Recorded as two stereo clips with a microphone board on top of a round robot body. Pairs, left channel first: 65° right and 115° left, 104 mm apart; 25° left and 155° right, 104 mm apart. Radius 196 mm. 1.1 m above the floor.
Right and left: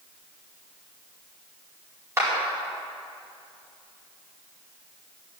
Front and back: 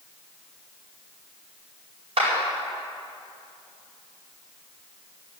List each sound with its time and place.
2.2 s a clap: 175° left, 4.5 m